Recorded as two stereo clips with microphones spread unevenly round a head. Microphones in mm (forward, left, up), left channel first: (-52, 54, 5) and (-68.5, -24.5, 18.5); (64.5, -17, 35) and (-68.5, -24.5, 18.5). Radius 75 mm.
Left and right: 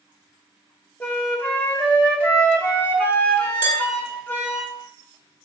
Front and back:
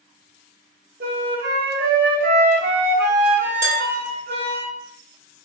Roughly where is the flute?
Behind left.